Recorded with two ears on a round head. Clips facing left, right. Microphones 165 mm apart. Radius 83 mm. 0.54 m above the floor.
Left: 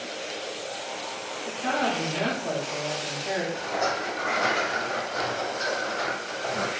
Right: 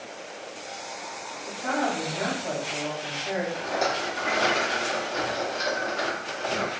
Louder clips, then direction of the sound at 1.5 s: Even; 20° left (ahead or behind).